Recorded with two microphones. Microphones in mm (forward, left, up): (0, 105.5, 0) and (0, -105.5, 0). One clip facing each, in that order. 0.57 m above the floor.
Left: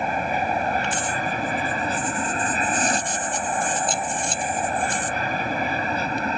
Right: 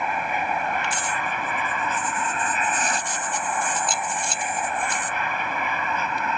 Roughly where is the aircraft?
Left.